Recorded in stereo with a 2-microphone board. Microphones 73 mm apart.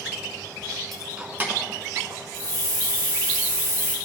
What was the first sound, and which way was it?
Keys jangling, centre (ahead or behind).